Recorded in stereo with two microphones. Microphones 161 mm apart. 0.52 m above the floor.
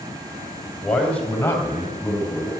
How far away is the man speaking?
About 3 m.